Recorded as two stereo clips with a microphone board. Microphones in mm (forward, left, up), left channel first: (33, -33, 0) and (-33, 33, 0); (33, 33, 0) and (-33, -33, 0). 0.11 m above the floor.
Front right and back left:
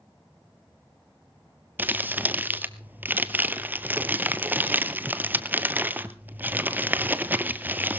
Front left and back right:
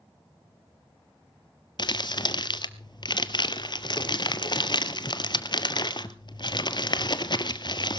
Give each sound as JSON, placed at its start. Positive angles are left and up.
{"t": 1.8, "sound": "crumpling", "azimuth_deg": 70, "distance_m": 0.7}